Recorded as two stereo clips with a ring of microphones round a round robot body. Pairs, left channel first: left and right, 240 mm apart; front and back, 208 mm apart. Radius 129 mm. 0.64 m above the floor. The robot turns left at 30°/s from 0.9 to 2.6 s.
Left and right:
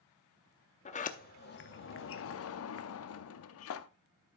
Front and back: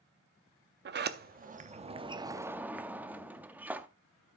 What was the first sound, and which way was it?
A sliding door, 150° left.